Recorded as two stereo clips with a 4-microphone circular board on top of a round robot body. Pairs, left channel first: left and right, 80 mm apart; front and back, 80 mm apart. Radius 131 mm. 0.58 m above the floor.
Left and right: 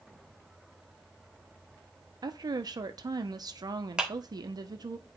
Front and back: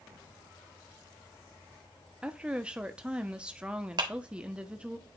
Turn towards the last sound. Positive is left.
turn(degrees=-170)